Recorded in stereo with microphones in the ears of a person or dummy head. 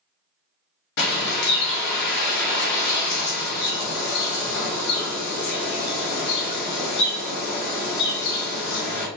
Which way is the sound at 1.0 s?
60° left (ahead or behind).